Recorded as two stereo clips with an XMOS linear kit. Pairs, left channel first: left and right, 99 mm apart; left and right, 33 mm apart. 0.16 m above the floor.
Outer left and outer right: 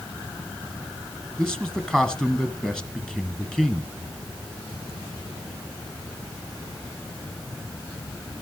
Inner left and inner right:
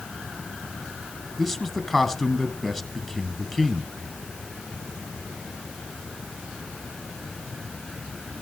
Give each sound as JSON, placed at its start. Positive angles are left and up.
{"t": 1.4, "sound": "a man speaking", "side_deg": 5, "distance_m": 1.9}